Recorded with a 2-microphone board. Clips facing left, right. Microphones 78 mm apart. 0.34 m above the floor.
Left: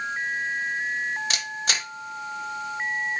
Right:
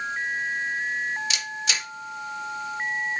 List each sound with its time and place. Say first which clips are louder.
1.3 s a camera shutter: left 1 dB; 45° left (ahead or behind), 0.9 m